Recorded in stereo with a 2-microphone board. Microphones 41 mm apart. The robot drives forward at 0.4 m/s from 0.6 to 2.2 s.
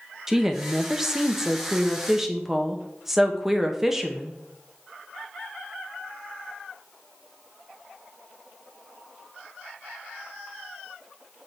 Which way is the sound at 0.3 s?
10° right (ahead or behind).